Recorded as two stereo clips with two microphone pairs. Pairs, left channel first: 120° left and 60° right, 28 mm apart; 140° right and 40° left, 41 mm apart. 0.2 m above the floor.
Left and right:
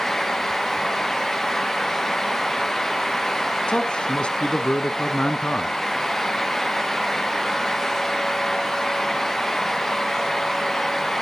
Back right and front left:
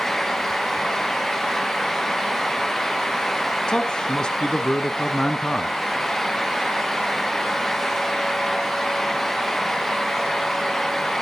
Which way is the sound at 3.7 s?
155° left.